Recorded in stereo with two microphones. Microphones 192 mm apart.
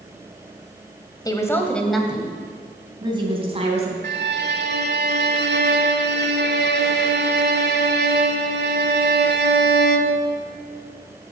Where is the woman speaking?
20° left (ahead or behind), 1.4 m; by 3.9 s 35° right (ahead or behind), 2.5 m.